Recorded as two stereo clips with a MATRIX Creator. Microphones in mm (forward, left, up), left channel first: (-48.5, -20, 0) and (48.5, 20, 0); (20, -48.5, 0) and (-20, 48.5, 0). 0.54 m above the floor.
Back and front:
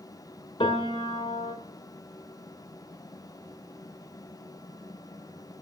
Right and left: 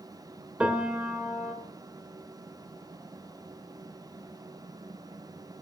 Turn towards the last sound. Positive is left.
turn(degrees=-170)